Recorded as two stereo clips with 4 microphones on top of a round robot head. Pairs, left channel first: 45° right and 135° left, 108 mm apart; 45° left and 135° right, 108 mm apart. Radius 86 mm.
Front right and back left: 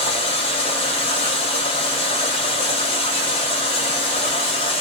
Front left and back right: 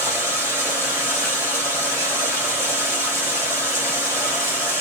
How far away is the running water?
About 1.2 m.